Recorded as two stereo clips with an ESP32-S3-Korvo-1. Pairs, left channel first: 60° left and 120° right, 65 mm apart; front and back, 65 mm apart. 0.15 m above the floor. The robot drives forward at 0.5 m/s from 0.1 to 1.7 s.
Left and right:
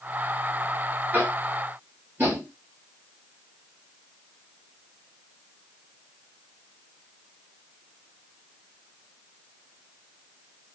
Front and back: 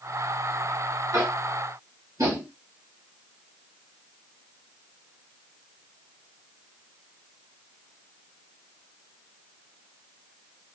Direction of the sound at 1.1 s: 175° right.